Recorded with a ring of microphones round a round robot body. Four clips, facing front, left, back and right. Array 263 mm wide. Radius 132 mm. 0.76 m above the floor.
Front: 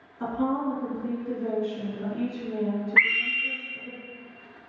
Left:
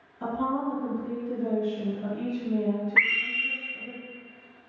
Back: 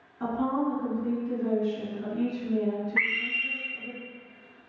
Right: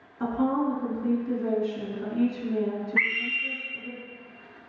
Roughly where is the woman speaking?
Right.